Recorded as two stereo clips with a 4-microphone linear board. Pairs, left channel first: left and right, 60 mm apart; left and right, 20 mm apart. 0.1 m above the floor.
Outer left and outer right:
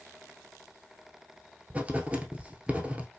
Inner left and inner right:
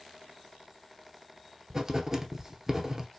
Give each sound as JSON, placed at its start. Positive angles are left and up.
{"t": 1.7, "sound": "writing", "side_deg": -20, "distance_m": 0.7}